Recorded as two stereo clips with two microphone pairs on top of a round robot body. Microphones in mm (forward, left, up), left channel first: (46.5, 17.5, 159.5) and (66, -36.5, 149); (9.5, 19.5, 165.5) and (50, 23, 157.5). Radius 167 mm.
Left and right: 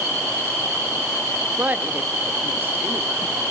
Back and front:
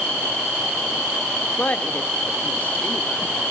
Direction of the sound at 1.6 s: 115° right.